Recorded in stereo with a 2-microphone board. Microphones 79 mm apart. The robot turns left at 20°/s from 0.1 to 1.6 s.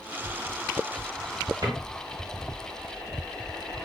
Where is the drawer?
55° right (ahead or behind), 1.3 m.